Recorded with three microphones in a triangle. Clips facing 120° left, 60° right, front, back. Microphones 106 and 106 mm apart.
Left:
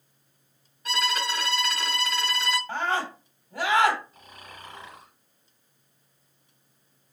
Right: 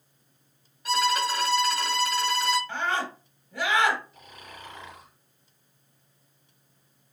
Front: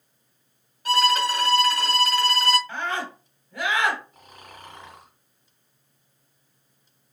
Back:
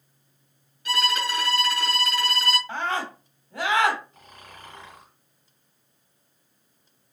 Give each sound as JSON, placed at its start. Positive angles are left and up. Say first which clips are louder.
{"t": 0.8, "sound": "a violin", "louder": "right 4 dB, front 5 dB", "azimuth_deg": 25, "distance_m": 1.5}
{"t": 2.7, "sound": "a scream", "louder": "left 1 dB, back 1 dB", "azimuth_deg": 135, "distance_m": 1.2}
{"t": 4.1, "sound": "snoring", "louder": "right 1 dB, front 1 dB", "azimuth_deg": 75, "distance_m": 1.9}